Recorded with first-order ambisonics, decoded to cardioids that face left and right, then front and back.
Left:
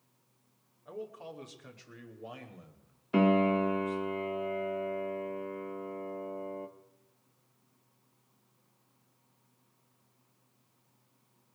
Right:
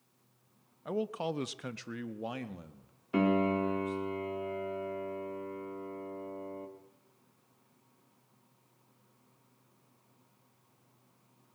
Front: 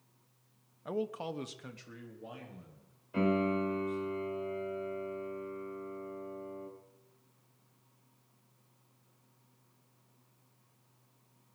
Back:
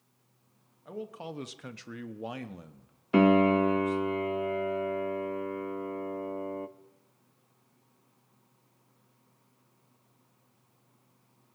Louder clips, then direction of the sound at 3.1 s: Left 3 dB, back 9 dB; 170° left.